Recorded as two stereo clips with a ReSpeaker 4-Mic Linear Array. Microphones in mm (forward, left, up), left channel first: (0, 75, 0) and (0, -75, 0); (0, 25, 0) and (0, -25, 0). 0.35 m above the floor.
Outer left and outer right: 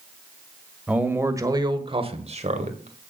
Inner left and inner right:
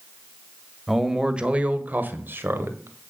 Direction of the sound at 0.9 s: 10° right (ahead or behind).